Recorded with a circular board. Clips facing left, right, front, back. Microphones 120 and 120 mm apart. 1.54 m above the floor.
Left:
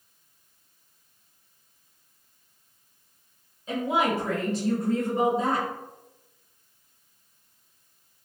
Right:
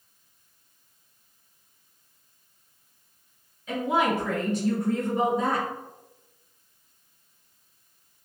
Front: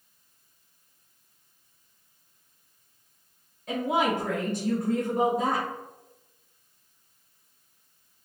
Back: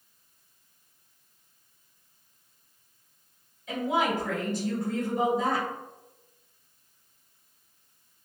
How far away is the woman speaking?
About 1.7 m.